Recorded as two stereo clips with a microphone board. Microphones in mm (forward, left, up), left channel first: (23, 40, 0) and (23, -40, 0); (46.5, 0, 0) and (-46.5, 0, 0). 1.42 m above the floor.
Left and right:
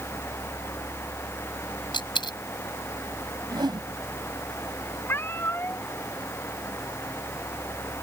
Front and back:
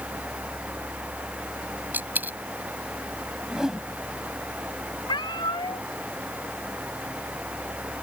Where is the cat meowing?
30° left.